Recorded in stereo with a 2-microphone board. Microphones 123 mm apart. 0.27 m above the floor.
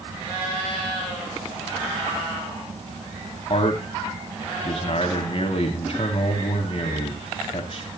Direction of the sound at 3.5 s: 50° left (ahead or behind).